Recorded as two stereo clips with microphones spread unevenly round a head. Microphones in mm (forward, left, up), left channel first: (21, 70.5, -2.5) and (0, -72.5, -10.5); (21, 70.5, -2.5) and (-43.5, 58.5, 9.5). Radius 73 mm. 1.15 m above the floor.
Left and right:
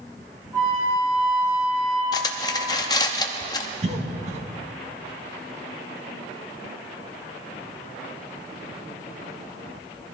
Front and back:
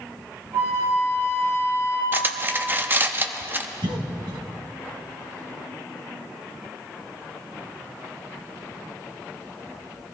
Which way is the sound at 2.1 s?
140° left.